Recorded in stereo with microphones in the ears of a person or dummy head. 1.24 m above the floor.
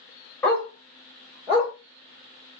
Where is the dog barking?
10° left (ahead or behind), 1.2 m; by 1.7 s 25° right (ahead or behind), 1.4 m.